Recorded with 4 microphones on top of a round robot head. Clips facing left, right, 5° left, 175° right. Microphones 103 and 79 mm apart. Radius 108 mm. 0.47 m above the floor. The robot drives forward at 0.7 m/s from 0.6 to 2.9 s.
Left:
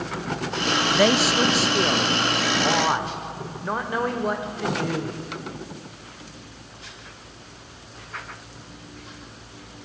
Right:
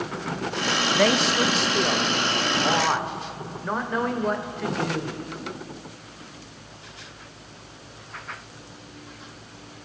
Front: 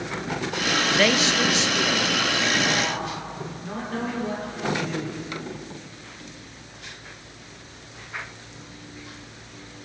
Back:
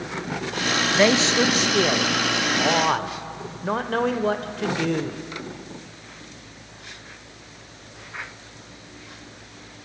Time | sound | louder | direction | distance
0.9 | a man speaking | left 2 dB, back 4 dB | 160° left | 0.7 m